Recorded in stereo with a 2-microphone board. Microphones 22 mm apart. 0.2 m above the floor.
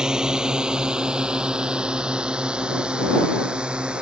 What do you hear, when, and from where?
0.0 s a drone: 30° right (ahead or behind); by 4.0 s 50° right (ahead or behind)